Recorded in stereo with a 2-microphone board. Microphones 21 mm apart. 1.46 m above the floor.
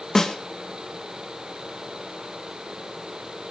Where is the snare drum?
25° left (ahead or behind), 2.5 m.